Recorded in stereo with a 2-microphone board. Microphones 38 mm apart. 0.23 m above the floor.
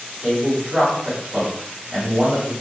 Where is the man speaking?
45° right (ahead or behind), 1.8 m.